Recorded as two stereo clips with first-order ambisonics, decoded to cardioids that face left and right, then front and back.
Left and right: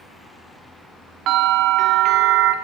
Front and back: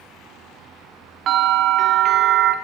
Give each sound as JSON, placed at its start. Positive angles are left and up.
{"t": 1.3, "sound": "a bell", "azimuth_deg": -130, "distance_m": 0.8}